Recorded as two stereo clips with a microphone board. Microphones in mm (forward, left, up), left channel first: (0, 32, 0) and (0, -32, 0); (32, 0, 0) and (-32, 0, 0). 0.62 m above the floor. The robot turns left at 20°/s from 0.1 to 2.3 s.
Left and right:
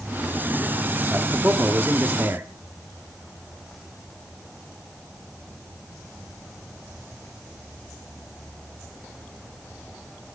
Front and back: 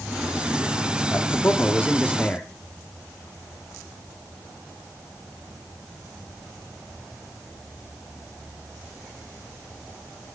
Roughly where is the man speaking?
Ahead right.